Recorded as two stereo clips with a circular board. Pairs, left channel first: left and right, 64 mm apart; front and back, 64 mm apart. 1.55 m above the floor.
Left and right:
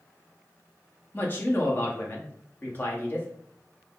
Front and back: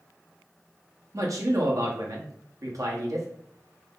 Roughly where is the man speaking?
Behind left.